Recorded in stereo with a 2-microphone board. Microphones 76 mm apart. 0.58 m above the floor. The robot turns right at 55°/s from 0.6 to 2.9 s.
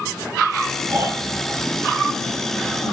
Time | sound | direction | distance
0.9 | snoring | 45° right | 4.5 m